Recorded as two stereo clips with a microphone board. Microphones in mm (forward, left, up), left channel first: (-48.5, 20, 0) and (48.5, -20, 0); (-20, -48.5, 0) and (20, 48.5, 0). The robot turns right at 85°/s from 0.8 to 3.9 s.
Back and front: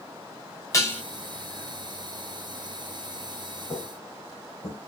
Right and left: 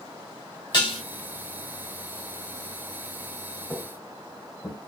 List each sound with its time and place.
0.7 s dishes clattering: 150° right, 1.1 m; by 1.0 s 130° right, 1.1 m
3.7 s footsteps: 160° left, 1.2 m; by 4.8 s 165° right, 1.7 m